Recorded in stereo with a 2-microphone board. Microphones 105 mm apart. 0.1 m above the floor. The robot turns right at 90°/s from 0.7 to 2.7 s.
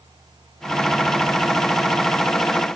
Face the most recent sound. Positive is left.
No sound to turn to.